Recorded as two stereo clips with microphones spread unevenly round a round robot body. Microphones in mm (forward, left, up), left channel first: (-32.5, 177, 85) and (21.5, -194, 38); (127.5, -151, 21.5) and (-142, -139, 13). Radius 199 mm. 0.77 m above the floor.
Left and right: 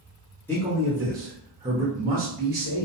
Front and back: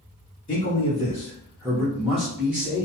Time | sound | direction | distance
0.5 | a man speaking | 5° left | 1.0 m